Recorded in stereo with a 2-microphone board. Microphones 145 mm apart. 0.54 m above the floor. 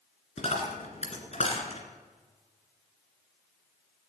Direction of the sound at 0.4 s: 50° left (ahead or behind).